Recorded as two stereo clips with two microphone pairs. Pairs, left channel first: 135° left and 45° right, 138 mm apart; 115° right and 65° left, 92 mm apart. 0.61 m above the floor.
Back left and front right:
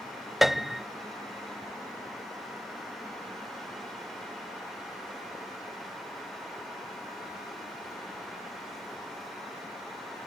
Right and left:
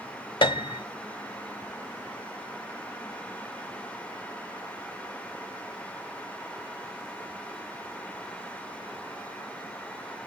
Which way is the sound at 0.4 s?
135° right.